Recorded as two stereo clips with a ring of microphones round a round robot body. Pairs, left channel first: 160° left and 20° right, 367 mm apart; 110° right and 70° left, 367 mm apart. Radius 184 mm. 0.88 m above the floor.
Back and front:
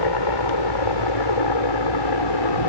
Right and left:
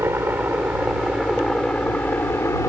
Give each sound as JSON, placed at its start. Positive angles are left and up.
{"t": 0.0, "sound": "a helicopter", "azimuth_deg": 150}